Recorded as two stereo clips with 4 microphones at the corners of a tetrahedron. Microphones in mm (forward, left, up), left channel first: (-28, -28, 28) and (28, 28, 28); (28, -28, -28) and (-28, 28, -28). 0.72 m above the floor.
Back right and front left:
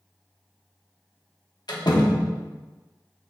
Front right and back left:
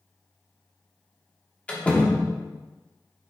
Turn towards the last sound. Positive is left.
turn(degrees=-115)